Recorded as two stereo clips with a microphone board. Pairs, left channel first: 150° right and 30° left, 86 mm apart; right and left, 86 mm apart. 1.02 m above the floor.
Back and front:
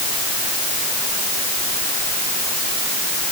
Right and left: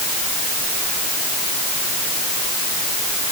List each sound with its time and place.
Only background noise.